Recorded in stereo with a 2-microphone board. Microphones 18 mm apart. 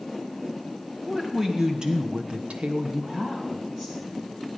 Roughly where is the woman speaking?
Right.